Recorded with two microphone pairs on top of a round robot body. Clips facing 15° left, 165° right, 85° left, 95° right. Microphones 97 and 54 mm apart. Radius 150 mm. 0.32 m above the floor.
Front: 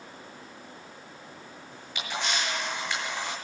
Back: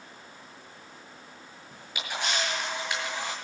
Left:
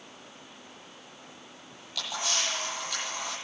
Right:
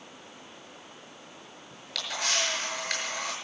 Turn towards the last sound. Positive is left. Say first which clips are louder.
# front 1 dB, right 1 dB
turn(degrees=-90)